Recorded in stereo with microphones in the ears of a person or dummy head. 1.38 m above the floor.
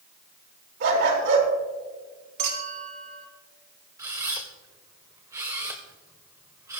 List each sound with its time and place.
0.8 s a dog barking: 65° right (ahead or behind), 5 m
2.4 s a clink: 45° right (ahead or behind), 4 m
4.0 s a camera shutter: 10° right (ahead or behind), 1.7 m